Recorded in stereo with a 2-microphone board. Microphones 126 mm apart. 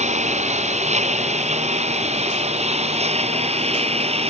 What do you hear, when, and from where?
0.0 s a lawn mower: 65° right (ahead or behind); by 4.3 s 55° right (ahead or behind)